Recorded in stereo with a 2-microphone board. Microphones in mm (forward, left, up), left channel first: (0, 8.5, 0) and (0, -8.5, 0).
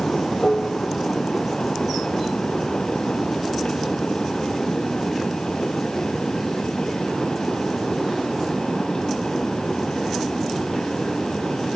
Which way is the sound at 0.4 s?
50° left (ahead or behind).